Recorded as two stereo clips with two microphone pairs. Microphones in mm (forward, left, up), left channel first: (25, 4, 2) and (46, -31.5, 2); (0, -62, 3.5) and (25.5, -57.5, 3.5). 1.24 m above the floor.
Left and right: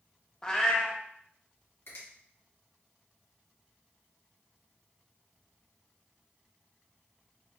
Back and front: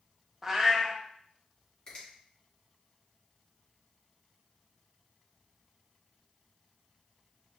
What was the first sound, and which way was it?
A cat meowing, 65° left.